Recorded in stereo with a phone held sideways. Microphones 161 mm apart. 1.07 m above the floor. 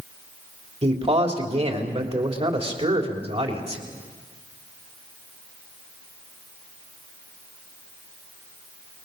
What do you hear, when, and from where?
0.8 s a man speaking: 40° right (ahead or behind), 3.5 m